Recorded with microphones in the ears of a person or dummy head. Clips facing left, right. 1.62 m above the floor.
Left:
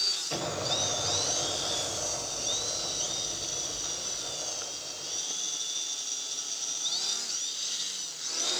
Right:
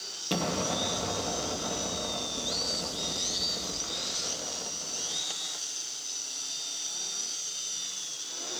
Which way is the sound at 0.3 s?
45° right (ahead or behind).